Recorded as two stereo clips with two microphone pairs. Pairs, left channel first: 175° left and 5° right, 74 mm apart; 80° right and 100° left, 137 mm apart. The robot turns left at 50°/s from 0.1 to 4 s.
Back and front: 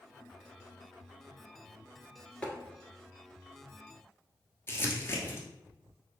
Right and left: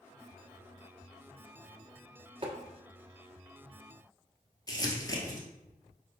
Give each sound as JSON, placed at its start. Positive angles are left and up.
{"t": 2.4, "sound": "tapping", "azimuth_deg": 110, "distance_m": 1.0}
{"t": 4.7, "sound": "crumpling", "azimuth_deg": -135, "distance_m": 1.0}